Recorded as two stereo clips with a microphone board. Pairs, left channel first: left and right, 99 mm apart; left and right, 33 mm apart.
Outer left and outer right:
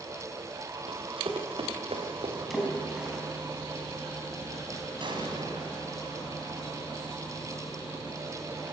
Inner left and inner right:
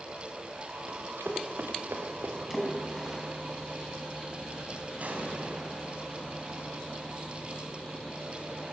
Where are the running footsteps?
65° right (ahead or behind), 4 m; by 2.4 s 80° right, 4.5 m.